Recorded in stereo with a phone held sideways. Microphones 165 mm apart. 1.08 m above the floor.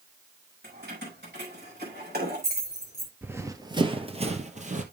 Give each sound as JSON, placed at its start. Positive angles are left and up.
{"t": 0.6, "sound": "keys jangling", "side_deg": -90, "distance_m": 6.0}
{"t": 3.2, "sound": "running footsteps", "side_deg": -10, "distance_m": 1.1}